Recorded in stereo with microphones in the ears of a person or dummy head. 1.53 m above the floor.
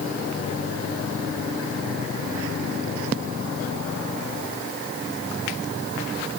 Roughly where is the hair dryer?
I don't hear a hair dryer.